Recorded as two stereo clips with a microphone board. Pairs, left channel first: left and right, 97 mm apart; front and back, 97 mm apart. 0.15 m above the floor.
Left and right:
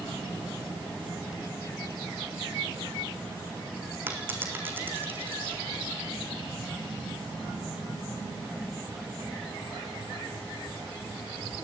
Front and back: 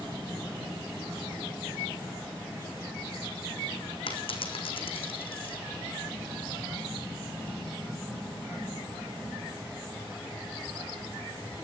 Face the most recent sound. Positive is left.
turn(degrees=-20)